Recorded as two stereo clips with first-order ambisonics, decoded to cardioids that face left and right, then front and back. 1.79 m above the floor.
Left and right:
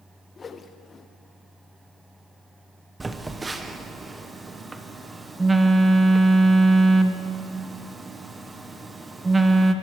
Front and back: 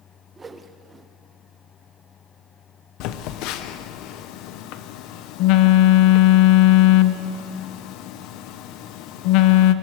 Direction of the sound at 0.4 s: 130° left.